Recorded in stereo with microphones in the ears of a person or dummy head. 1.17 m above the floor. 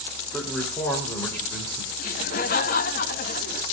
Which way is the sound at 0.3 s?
5° left (ahead or behind).